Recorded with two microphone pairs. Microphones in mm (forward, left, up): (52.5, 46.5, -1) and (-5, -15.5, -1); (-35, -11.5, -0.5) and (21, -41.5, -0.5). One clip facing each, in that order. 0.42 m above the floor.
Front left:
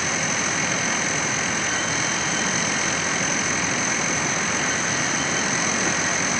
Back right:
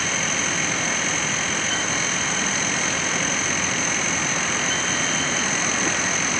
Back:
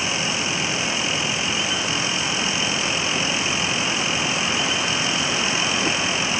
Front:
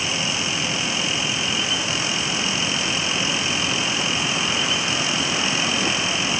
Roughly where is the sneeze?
No sneeze in this recording.